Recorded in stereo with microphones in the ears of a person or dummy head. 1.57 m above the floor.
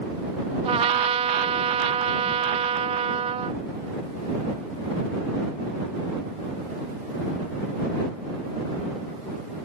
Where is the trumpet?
35° right (ahead or behind).